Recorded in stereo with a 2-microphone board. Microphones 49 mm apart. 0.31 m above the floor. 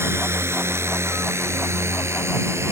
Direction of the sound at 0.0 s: 55° right (ahead or behind).